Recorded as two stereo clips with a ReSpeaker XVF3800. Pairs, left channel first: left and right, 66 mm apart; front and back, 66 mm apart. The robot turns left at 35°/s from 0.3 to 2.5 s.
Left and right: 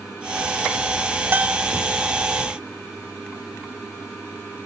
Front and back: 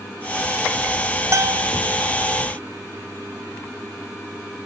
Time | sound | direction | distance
1.3 | a bell | 150° right | ?